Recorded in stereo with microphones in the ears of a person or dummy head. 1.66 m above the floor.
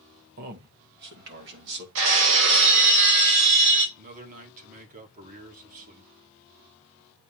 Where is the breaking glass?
75° right (ahead or behind), 5 m.